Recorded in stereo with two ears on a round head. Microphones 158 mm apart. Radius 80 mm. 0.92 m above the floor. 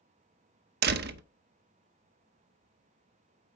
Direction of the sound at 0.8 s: 60° right (ahead or behind).